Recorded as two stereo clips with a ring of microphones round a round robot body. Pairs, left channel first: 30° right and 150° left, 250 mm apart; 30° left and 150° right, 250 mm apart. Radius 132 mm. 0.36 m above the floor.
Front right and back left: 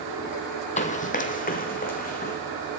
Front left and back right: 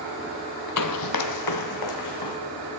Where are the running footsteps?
30° left, 0.5 m.